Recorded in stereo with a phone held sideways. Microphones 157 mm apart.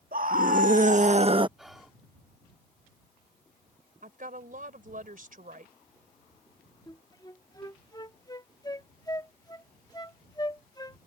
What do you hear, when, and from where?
0.1 s a scream: 60° right (ahead or behind); by 1.5 s 30° right (ahead or behind)
1.6 s whispering: centre (ahead or behind)
4.0 s a woman speaking: 55° right (ahead or behind)
6.9 s a flute: 25° left (ahead or behind)